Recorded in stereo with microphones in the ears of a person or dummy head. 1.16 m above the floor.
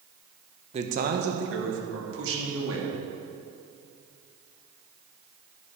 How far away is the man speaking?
About 0.8 m.